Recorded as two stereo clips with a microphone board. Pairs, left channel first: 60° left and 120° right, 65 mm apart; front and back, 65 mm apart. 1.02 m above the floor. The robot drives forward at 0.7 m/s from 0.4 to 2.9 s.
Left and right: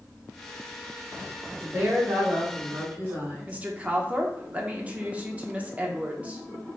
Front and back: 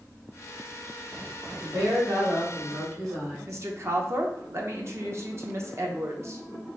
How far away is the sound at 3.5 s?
About 0.7 m.